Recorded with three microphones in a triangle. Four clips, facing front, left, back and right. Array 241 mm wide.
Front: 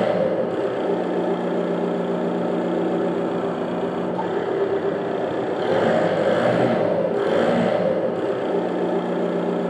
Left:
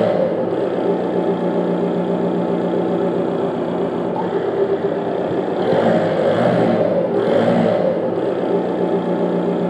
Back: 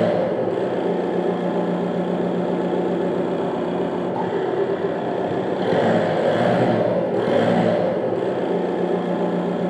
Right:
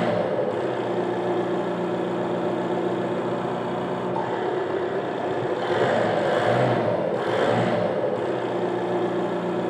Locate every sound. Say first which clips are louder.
0.0 s an engine running: left 6 dB, back 1 dB; 110° left, 8.5 m